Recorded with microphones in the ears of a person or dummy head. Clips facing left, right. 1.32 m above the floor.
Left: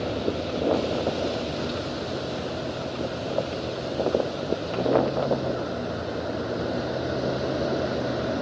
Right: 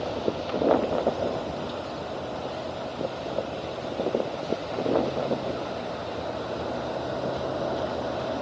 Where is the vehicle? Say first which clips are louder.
Left 1 dB; 30° left (ahead or behind).